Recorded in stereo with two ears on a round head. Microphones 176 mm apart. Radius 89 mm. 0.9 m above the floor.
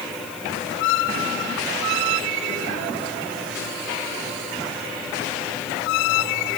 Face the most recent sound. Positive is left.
No sound to turn to.